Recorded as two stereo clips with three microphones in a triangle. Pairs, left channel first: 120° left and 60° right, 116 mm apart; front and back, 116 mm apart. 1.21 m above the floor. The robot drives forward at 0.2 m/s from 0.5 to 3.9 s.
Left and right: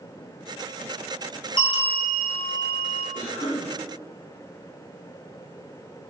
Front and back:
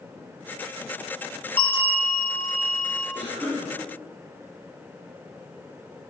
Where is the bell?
70° left, 1.3 m; by 3.0 s 85° left, 1.2 m.